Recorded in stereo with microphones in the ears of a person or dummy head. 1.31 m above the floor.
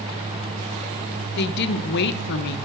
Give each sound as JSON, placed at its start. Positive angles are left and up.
{"t": 1.4, "sound": "a woman speaking", "side_deg": 65, "distance_m": 1.1}